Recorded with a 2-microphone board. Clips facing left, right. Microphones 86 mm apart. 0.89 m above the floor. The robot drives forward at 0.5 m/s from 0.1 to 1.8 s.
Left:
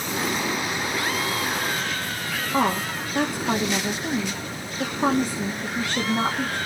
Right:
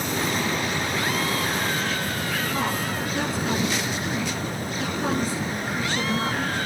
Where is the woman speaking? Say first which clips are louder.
Left 3 dB; 45° left (ahead or behind), 1.9 m.